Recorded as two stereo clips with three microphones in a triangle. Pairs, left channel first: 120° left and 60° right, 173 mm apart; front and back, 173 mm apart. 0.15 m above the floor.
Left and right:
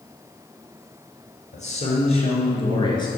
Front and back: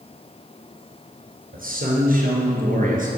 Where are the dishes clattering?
I don't hear dishes clattering.